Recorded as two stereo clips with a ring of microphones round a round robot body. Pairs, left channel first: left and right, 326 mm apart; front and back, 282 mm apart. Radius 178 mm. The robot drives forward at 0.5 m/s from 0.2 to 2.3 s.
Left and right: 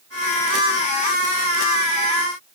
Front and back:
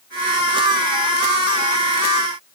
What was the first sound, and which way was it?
Only background noise.